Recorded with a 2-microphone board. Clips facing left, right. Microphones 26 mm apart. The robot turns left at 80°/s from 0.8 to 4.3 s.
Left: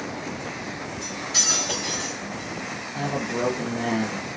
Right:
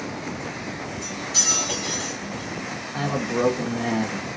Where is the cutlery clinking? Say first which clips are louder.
Even; 60° left, 1.8 m; by 2.5 s 60° right, 1.8 m.